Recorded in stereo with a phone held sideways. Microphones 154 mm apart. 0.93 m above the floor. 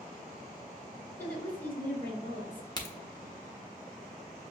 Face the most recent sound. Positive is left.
turn(degrees=25)  # may be behind; listen again after turning